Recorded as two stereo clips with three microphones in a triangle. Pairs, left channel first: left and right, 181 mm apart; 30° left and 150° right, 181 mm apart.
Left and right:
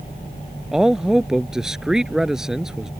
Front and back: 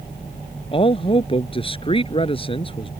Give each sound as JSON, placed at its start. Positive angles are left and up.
{"t": 0.7, "sound": "a man speaking", "azimuth_deg": -5}